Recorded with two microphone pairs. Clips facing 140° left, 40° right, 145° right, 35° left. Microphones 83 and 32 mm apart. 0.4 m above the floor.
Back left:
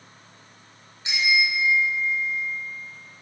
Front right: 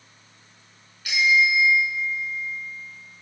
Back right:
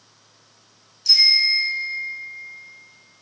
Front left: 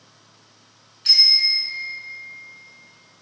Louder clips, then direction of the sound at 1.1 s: Front right 4 dB, back right 1 dB; 75° left.